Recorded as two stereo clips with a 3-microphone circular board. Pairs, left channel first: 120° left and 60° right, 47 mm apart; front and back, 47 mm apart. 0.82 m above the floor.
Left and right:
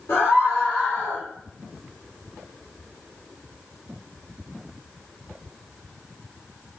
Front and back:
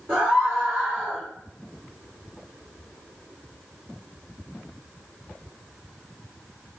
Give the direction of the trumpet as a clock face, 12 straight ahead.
I don't hear a trumpet.